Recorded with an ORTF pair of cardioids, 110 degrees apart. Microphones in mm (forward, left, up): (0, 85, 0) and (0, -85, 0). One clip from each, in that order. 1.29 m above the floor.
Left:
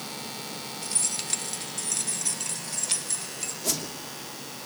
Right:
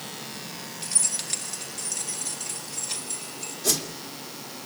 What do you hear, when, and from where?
0.8 s keys jangling: 5° right, 1.7 m; by 3.5 s 35° left, 4 m
3.6 s a whoosh: 15° right, 2.5 m